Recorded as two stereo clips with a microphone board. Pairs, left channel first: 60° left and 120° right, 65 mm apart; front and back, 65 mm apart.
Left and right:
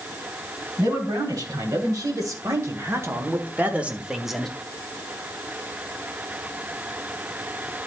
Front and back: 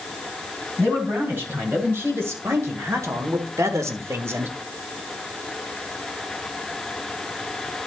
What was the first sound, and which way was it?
A man speaking, 125° right.